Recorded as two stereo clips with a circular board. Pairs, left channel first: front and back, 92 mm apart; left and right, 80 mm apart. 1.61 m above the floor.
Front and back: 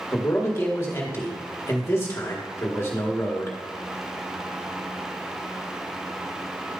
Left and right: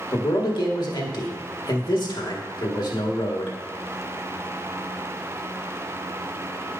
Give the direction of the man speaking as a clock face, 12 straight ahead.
10 o'clock.